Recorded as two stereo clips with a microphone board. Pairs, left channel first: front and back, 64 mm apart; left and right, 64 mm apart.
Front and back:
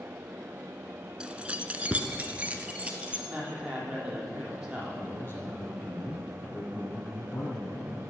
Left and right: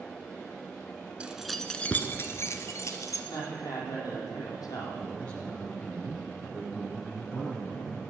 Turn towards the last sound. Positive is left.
turn(degrees=20)